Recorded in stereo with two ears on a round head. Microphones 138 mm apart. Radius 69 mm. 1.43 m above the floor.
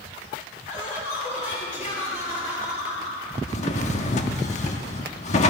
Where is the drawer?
45° left (ahead or behind), 1.2 m.